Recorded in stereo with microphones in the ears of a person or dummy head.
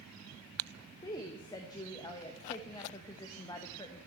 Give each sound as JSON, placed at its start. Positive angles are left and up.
{"t": 1.0, "sound": "a woman speaking", "side_deg": 20, "distance_m": 0.8}